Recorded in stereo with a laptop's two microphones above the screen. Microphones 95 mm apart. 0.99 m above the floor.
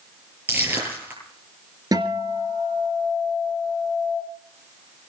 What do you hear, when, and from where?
0.5 s crushing: 20° right (ahead or behind), 9.5 m
1.9 s a guitar: 40° right (ahead or behind), 3 m